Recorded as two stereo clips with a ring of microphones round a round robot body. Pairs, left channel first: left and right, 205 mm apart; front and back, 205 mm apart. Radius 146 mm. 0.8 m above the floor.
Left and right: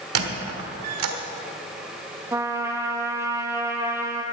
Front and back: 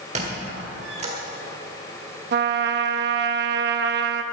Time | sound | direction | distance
0.1 | a squeak | 110° right | 1.4 m
2.3 | a trumpet | 165° right | 0.8 m